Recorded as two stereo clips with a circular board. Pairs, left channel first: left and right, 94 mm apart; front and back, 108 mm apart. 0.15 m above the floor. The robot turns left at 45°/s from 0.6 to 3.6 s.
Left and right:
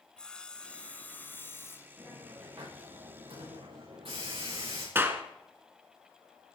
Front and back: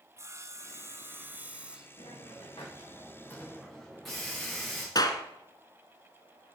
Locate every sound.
0.2 s sawing: 160° left, 1.1 m; by 1.9 s 105° left, 1.1 m
2.0 s a hiss: 15° right, 8.5 m; by 4.8 s 90° right, 8.5 m
5.0 s a clap: 30° right, 1.6 m